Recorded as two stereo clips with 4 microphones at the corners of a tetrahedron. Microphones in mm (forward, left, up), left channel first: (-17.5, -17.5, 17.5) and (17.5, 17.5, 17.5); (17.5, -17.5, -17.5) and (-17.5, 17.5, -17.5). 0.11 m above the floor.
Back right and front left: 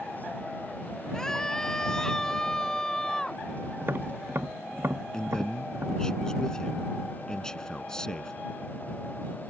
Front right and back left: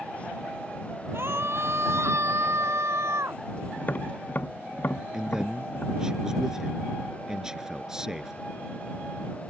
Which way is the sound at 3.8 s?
5° left.